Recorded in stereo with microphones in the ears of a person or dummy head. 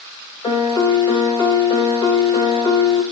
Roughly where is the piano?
Centre.